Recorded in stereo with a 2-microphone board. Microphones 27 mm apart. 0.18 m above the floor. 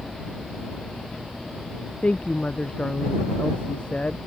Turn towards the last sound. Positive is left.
turn(degrees=45)  # may be behind; listen again after turning